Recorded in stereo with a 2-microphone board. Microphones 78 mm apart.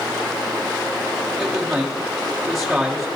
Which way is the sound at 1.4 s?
10° right (ahead or behind).